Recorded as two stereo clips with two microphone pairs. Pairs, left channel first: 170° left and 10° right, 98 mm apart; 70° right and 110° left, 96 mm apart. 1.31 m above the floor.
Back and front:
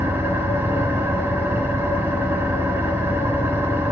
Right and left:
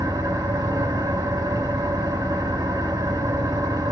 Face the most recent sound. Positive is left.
turn(degrees=60)